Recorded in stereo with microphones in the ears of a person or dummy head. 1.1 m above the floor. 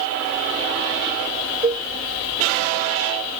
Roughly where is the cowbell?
Centre.